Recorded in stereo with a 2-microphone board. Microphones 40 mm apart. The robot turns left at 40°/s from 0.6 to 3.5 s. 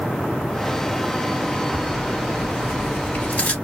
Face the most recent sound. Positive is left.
turn(degrees=40)  # may be behind; listen again after turning